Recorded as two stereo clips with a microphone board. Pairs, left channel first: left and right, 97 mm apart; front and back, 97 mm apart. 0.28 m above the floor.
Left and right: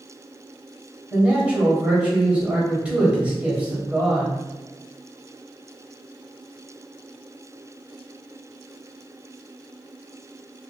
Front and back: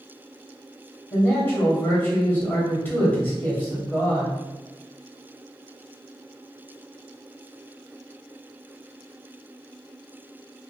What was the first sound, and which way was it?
A man speaking, 30° right.